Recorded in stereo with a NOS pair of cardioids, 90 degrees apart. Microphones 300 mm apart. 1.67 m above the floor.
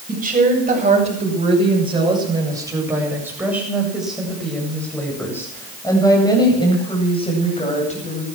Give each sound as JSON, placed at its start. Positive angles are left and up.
{"t": 0.1, "sound": "a woman speaking", "azimuth_deg": -25, "distance_m": 8.5}